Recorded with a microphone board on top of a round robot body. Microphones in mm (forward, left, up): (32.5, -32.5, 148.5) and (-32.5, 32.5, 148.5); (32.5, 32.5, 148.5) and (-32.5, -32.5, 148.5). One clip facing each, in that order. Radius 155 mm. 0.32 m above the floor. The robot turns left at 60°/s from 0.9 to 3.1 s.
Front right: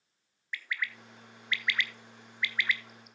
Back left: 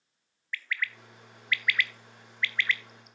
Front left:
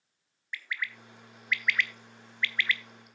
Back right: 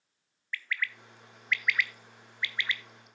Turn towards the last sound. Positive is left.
turn(degrees=-135)